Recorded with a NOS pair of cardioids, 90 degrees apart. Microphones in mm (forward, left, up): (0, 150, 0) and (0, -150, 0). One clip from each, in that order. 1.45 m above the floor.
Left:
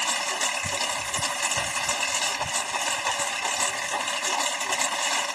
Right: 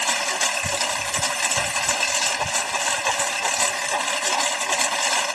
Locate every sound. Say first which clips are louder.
0.0 s a lawn mower: right 4 dB; 35° right